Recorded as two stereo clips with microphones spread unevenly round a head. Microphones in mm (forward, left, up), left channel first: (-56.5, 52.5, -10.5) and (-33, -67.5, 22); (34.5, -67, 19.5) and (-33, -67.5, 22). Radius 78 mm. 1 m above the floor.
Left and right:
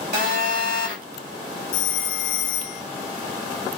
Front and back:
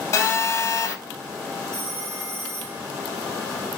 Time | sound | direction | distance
0.1 | a phone buzzing | 35° right | 8 m
1.7 | a phone ringing | 90° left | 2.5 m